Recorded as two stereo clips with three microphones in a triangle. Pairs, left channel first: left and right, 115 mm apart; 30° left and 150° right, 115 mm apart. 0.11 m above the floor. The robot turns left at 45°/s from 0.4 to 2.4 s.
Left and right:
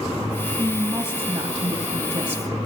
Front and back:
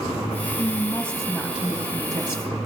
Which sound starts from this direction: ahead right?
A woman speaking, at 0.6 s.